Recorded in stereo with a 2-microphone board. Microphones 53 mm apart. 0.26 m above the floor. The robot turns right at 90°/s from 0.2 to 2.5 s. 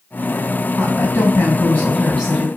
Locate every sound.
0.8 s a woman speaking: 55° left, 2 m; by 2.5 s 150° right, 2 m